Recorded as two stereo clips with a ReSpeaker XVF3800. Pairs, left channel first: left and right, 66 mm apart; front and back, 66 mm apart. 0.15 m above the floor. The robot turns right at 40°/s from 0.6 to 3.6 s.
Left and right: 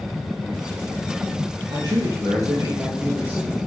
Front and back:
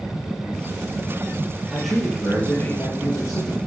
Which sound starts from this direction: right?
A man speaking, at 1.7 s.